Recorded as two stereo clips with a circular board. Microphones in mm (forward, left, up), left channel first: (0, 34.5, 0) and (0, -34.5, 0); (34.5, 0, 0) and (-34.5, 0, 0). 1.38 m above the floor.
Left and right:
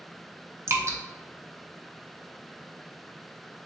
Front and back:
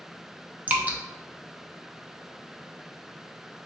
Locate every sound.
0.7 s dripping: 120° right, 0.5 m